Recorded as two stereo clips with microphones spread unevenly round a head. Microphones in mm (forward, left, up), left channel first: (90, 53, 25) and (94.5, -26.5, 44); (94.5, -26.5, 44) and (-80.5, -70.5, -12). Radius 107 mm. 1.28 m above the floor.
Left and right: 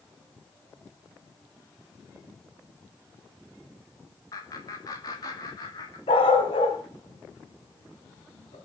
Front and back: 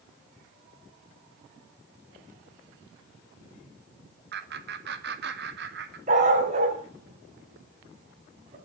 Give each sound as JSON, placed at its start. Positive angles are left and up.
{"t": 4.3, "sound": "laughter", "azimuth_deg": 155, "distance_m": 2.0}
{"t": 6.1, "sound": "a dog barking", "azimuth_deg": 130, "distance_m": 3.5}